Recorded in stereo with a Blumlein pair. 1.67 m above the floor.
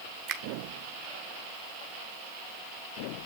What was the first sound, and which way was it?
A finger snap, 35° right.